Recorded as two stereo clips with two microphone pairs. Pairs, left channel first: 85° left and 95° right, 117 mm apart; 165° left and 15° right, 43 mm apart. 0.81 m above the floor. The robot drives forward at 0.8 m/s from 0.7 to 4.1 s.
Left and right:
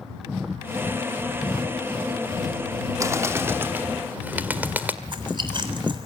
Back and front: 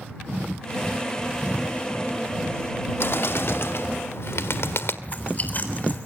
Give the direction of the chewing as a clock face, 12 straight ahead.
5 o'clock.